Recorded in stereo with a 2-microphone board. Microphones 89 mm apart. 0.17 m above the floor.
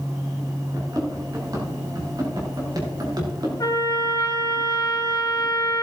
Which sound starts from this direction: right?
Running footsteps, at 0.7 s.